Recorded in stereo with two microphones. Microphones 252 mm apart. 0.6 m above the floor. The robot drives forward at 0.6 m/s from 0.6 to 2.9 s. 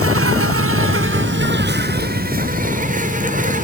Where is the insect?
65° right (ahead or behind), 1.4 m; by 3.6 s 35° right (ahead or behind), 2.5 m.